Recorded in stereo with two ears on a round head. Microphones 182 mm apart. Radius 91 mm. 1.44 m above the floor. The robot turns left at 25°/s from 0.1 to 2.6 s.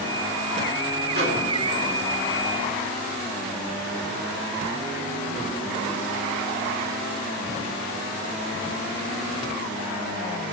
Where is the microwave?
45° right (ahead or behind), 3 m; by 1.4 s 55° right (ahead or behind), 3 m.